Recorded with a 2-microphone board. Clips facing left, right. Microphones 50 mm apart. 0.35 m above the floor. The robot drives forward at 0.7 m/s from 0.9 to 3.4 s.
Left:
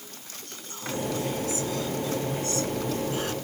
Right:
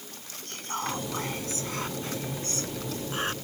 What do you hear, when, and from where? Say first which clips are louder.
0.5 s whispering: right 4 dB; 60° right (ahead or behind); by 3.3 s 40° right (ahead or behind)